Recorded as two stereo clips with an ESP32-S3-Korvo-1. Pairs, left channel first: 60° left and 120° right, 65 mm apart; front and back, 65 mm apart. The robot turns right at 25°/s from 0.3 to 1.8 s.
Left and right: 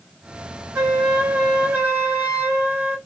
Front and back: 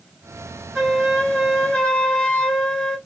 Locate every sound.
0.8 s a flute: 95° right, 2.5 m; by 3.0 s 70° right, 2.5 m